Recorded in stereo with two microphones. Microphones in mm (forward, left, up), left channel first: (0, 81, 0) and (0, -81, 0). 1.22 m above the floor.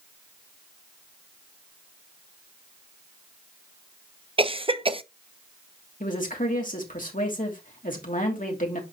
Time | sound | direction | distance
4.4 | a cough | 35° right (ahead or behind) | 0.8 m
6.0 | a woman speaking | 55° left (ahead or behind) | 2.5 m